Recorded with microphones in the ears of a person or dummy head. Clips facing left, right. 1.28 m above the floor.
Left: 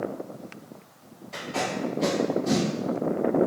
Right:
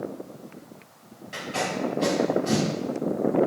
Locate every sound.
1.3 s tape being pulled: 20° right (ahead or behind), 1.2 m